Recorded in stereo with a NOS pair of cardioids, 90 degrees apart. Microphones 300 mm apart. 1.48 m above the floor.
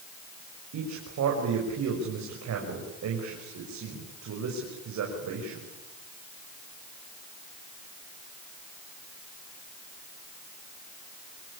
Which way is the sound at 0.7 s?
65° right.